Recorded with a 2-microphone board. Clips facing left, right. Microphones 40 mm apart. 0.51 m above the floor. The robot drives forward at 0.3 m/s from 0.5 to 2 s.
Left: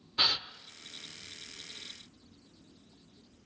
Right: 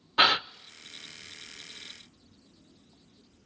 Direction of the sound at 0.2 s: 60° right (ahead or behind).